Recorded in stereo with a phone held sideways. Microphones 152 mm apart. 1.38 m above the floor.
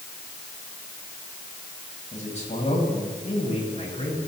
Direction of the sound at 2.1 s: 50° left (ahead or behind).